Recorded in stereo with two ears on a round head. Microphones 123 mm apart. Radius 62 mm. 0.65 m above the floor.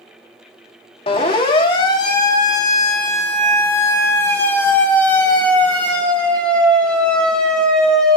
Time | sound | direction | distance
1.1 | a siren | 40° left (ahead or behind) | 3.5 m